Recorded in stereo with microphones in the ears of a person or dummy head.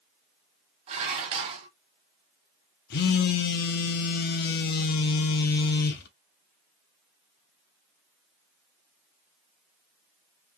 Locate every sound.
0.9 s dishes clattering: 35° right (ahead or behind), 0.8 m
2.9 s a phone buzzing: 40° left (ahead or behind), 0.5 m